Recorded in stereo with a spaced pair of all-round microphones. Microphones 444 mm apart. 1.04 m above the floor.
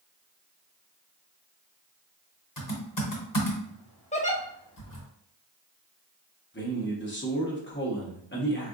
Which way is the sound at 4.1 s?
15° left (ahead or behind).